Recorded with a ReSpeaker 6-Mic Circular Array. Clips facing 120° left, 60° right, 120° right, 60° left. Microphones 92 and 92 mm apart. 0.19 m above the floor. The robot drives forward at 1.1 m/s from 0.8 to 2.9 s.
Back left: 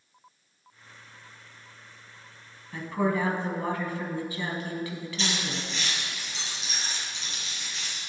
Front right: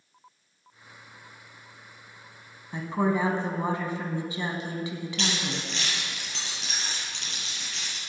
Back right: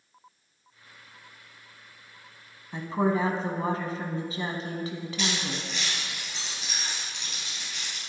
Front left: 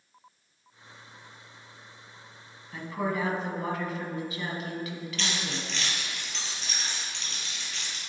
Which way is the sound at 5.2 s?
40° right.